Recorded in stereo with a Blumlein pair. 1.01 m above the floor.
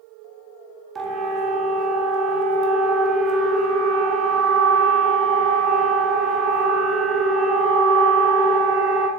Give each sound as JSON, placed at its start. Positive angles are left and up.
{"t": 0.9, "sound": "a siren", "azimuth_deg": -25, "distance_m": 3.0}